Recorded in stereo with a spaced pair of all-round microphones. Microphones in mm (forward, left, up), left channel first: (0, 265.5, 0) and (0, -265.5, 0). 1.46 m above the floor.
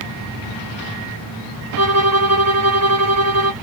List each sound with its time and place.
1.8 s a violin: 30° right (ahead or behind), 0.9 m